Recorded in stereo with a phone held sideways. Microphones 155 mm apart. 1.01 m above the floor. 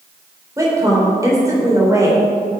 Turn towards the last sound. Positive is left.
turn(degrees=-20)  # may be behind; listen again after turning